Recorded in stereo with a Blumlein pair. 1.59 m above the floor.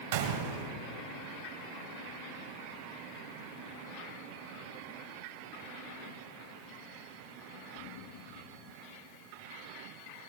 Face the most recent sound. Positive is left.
turn(degrees=-60)